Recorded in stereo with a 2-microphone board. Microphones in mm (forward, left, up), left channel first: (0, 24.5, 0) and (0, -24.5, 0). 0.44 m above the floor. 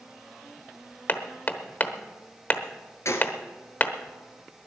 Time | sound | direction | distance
1.1 | hammering | 40° left (ahead or behind) | 0.9 m
3.0 | a gunshot | 85° left | 1.7 m